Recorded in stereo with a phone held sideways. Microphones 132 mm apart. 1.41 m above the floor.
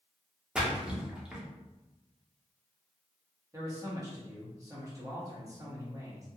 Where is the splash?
5° right (ahead or behind), 0.6 m.